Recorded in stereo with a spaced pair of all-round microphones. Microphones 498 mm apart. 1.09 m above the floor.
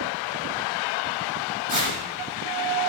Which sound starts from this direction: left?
Tearing paper, at 1.7 s.